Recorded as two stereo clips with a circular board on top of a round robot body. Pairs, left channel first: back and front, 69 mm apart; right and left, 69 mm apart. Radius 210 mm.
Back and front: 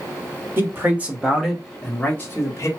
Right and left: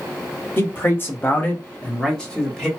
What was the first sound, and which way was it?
A man speaking, 45° right.